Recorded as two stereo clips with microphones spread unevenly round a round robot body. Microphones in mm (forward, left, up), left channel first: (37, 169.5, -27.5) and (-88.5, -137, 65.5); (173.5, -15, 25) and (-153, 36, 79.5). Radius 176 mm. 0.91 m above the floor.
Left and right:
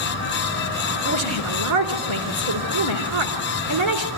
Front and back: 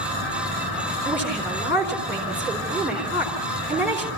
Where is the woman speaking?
100° right, 4 m.